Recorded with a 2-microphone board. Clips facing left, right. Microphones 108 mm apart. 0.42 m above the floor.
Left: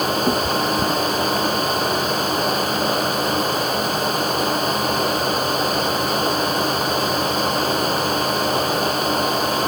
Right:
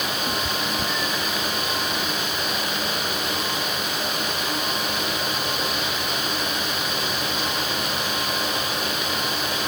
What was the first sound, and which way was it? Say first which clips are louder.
A cat meowing: left 8 dB; 55° left (ahead or behind).